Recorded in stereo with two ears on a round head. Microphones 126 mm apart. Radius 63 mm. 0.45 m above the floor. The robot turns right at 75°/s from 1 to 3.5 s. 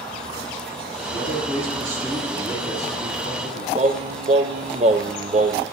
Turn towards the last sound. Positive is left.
turn(degrees=-45)  # may be behind; listen again after turning